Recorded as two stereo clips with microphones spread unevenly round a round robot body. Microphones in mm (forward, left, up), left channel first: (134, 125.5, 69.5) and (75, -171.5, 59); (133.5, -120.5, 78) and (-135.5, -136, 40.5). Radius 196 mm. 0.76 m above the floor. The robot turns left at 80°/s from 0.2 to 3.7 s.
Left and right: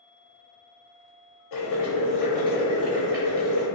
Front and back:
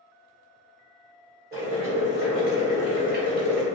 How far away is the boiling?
About 1.3 m.